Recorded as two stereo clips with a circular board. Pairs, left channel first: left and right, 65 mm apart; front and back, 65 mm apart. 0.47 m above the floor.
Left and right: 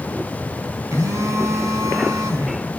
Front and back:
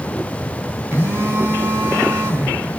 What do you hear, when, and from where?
0.9 s a phone buzzing: 135° right, 6 m